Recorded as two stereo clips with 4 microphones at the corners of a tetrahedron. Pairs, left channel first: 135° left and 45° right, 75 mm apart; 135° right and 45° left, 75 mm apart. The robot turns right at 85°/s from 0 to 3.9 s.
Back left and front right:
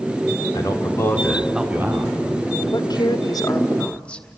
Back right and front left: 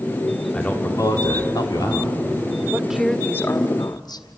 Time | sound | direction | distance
0.5 | a man speaking | 145° left | 3 m
2.7 | a woman speaking | 110° left | 1.7 m